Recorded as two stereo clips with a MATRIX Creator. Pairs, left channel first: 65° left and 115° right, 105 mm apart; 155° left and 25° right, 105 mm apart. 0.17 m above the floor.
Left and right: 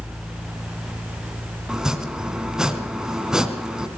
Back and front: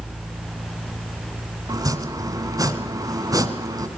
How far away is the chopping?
About 1.6 m.